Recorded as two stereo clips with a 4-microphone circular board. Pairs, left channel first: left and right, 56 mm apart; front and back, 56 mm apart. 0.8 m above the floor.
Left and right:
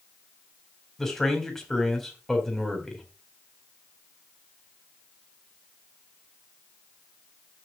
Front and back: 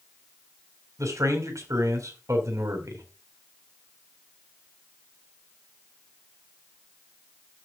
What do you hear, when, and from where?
1.0 s a man speaking: 175° left, 3.5 m